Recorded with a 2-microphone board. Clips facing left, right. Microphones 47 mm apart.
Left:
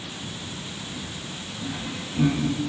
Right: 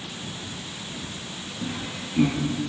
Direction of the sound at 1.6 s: 40° right (ahead or behind).